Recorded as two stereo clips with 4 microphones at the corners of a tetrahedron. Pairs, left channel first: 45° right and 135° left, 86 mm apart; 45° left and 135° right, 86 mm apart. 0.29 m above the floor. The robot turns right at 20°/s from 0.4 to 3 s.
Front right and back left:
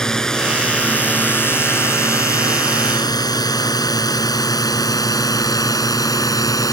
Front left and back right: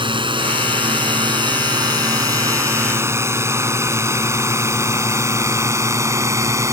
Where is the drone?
125° right; by 6.7 s 85° right.